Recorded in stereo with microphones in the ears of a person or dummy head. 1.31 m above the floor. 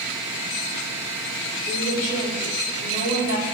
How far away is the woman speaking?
About 3.5 m.